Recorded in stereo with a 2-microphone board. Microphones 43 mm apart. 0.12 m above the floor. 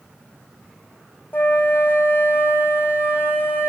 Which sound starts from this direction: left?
A flute, at 1.3 s.